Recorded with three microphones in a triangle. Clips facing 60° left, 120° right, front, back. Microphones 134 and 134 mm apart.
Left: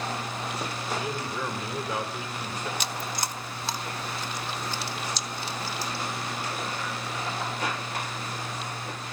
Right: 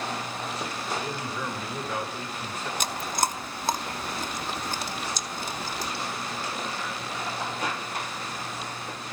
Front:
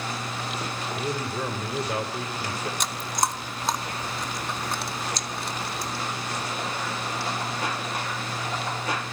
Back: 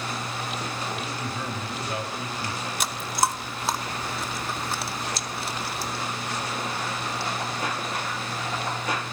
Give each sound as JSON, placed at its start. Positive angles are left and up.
{"t": 1.0, "sound": "a man speaking", "azimuth_deg": -15, "distance_m": 2.0}
{"t": 2.8, "sound": "chewing", "azimuth_deg": -95, "distance_m": 0.6}